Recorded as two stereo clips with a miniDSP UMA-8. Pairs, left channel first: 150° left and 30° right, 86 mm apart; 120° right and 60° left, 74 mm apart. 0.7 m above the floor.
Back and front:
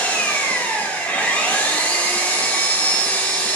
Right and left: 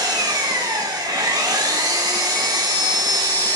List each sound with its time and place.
0.0 s an engine running: 80° left, 1.3 m